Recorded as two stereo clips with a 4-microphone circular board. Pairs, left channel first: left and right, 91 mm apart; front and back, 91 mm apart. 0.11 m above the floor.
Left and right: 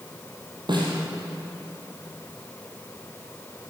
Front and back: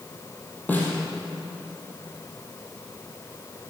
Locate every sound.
0.7 s a snare drum: 70° right, 3 m